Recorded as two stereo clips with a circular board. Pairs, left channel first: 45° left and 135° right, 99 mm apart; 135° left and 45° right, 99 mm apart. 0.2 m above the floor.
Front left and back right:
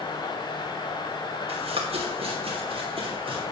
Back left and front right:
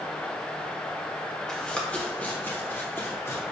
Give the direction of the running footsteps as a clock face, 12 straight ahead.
5 o'clock.